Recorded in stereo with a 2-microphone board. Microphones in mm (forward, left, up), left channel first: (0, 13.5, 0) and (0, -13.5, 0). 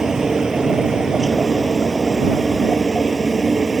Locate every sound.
0.0 s a helicopter: 15° right (ahead or behind)